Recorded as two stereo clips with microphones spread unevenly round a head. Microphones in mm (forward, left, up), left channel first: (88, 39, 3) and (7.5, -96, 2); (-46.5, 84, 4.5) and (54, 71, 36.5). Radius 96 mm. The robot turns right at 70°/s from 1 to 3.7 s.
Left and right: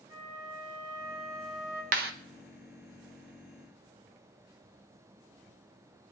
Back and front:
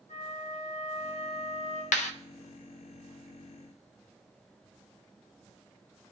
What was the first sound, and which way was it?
A flute, 170° left.